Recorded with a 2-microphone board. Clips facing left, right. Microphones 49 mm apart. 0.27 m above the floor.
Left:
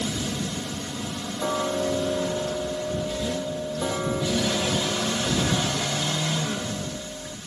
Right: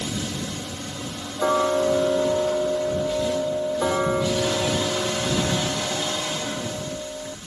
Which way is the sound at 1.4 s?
25° right (ahead or behind).